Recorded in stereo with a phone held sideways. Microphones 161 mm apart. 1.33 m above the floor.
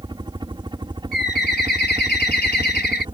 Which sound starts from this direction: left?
A bird, at 1.1 s.